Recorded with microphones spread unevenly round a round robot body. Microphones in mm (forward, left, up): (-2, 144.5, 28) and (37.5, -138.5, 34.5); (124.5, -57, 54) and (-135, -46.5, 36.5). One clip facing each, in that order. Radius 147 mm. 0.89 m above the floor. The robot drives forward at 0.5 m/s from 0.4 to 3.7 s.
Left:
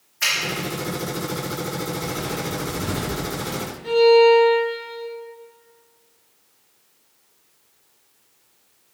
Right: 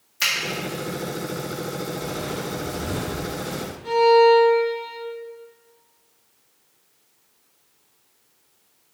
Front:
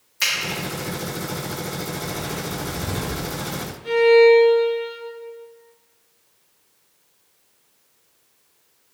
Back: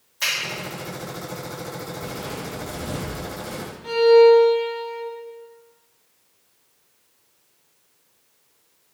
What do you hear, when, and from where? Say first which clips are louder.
0.2 s a finger snap: left 1 dB, even; 55° right, 1.4 m
2.0 s footsteps: left 1 dB, front 2 dB; 130° left, 1.1 m; by 3.7 s 160° right, 2 m
3.8 s a violin: left 2 dB, even; 175° right, 1.5 m